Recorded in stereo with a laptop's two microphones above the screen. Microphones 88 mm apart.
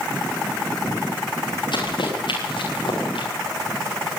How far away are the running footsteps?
About 9.5 m.